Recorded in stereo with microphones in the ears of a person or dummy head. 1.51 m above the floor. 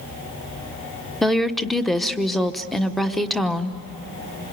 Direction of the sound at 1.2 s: Centre (ahead or behind).